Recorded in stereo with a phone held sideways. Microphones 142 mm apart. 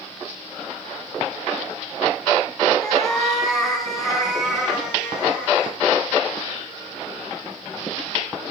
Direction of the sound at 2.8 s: 5° left (ahead or behind).